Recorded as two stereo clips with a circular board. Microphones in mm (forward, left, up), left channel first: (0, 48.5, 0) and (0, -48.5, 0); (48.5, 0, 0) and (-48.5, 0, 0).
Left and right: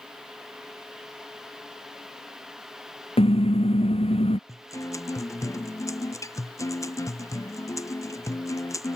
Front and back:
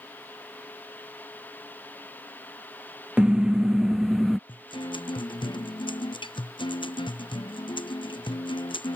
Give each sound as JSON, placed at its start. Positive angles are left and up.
{"t": 3.2, "sound": "a car horn", "azimuth_deg": 100}
{"t": 4.5, "sound": "a guitar", "azimuth_deg": 30}